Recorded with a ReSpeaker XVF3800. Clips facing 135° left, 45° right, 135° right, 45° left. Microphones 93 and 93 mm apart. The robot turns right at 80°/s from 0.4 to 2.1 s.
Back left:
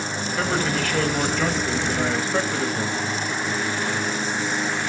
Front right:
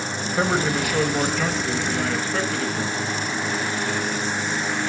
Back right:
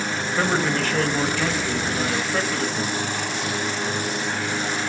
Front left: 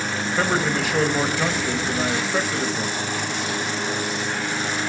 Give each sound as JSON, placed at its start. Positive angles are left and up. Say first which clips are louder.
{"t": 0.4, "sound": "a man speaking", "louder": "front right 2 dB, even", "azimuth_deg": -45, "distance_m": 0.9}